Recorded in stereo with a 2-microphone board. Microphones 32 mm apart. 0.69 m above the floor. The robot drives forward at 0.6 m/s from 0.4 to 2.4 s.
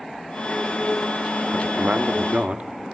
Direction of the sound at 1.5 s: 65° right (ahead or behind).